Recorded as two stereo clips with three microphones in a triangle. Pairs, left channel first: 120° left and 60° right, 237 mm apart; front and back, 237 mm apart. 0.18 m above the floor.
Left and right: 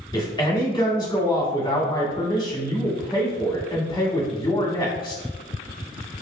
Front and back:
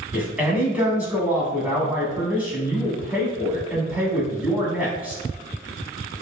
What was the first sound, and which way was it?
A man speaking, 110° left.